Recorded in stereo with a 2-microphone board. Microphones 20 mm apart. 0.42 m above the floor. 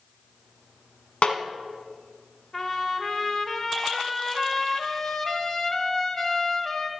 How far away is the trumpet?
About 0.9 m.